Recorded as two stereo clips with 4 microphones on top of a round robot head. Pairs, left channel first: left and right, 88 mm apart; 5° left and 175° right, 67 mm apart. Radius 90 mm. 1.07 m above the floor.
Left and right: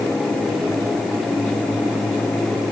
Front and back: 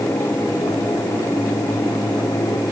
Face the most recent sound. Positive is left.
No sound to turn to.